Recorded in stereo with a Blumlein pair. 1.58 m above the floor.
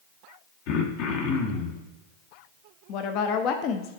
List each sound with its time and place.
0.7 s throat clearing: 45° left, 1.0 m
2.9 s a woman speaking: 40° left, 0.7 m